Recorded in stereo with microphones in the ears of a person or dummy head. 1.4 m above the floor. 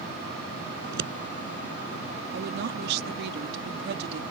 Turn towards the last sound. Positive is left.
turn(degrees=-60)  # may be behind; listen again after turning